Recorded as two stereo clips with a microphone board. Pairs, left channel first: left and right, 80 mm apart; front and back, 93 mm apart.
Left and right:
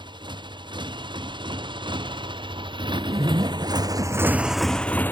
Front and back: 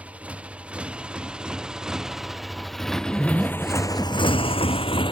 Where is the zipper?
95° right.